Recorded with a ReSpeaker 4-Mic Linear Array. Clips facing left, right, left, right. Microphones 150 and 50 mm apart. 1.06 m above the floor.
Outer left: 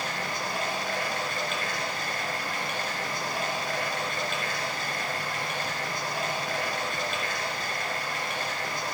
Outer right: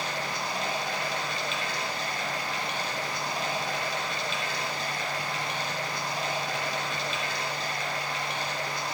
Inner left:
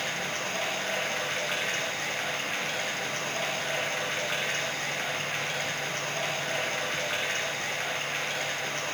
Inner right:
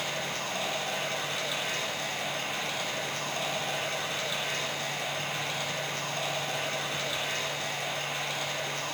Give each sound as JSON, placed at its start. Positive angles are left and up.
{"t": 0.0, "sound": "running water", "side_deg": 50, "distance_m": 2.0}